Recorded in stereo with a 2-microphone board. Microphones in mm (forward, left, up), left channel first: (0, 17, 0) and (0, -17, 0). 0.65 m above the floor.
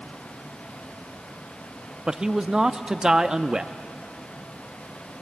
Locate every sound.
2.1 s a man speaking: 20° right (ahead or behind), 0.6 m